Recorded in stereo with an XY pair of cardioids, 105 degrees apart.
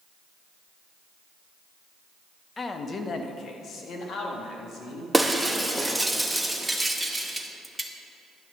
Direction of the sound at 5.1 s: 5° right.